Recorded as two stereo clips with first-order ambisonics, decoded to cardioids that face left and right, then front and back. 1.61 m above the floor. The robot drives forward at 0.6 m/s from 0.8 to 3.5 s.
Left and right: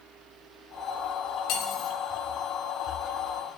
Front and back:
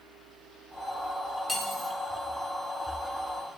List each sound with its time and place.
1.5 s cutlery clinking: 85° left, 1.3 m; by 1.9 s 100° left, 1.3 m